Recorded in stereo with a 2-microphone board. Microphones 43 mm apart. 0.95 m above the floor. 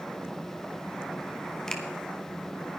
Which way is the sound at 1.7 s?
15° left (ahead or behind).